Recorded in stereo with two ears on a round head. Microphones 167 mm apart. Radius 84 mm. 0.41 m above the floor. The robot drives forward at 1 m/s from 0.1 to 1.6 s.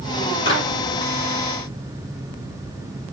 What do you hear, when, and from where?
0.5 s a clap: 30° left (ahead or behind), 6 m